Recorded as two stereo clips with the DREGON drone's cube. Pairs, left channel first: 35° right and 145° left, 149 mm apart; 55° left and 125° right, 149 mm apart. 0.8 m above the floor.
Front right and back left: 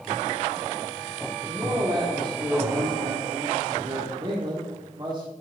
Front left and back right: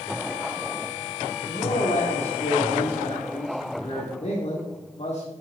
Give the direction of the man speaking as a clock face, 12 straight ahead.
9 o'clock.